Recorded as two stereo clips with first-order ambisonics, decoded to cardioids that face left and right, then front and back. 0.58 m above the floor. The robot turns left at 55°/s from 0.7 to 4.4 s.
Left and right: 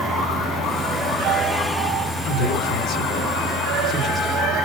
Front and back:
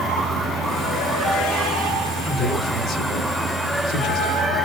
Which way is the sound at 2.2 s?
95° left.